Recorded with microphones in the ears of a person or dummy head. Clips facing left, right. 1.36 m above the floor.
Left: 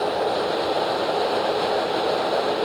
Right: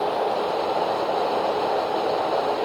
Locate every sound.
Only background noise.